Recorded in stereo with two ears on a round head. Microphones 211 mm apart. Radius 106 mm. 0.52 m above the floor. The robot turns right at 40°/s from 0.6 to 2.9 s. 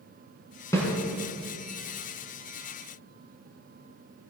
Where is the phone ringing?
No phone ringing in this recording.